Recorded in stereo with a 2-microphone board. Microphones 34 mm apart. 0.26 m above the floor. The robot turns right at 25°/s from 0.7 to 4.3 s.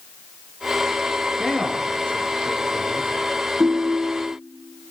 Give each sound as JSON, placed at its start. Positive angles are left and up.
{"t": 1.4, "sound": "a man speaking", "side_deg": 20, "distance_m": 4.0}
{"t": 3.6, "sound": "a ringtone", "side_deg": -35, "distance_m": 1.4}